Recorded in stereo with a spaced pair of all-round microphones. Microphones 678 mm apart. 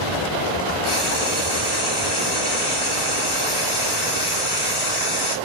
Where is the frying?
10° left (ahead or behind), 3 m.